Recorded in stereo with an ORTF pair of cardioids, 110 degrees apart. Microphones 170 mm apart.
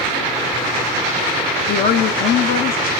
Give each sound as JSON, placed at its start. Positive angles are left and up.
{"t": 1.7, "sound": "a woman speaking", "azimuth_deg": 60, "distance_m": 0.9}